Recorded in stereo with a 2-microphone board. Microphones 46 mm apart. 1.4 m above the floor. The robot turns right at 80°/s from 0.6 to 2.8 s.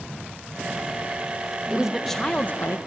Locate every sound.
1.7 s a woman speaking: 25° right, 1.1 m; by 2.8 s 60° left, 1.1 m